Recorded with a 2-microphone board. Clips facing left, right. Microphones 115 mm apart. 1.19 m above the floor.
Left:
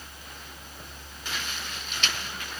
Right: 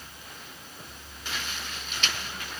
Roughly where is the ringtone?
I don't hear a ringtone.